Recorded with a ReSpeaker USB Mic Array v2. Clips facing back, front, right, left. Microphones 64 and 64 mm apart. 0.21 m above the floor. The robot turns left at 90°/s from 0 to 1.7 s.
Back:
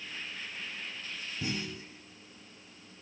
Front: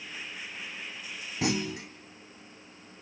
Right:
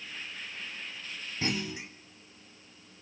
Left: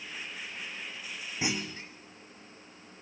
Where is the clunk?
15° left, 1.8 m; by 1.9 s 10° right, 1.8 m.